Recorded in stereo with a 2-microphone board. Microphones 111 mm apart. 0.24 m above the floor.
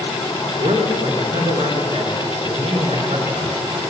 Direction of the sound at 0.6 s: 65° right (ahead or behind).